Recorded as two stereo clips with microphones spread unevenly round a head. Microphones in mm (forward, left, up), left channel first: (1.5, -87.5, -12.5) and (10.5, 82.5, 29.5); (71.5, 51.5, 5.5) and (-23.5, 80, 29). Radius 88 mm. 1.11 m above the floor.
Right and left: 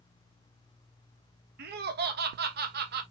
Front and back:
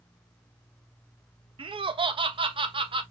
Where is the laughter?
125° left, 1.1 m.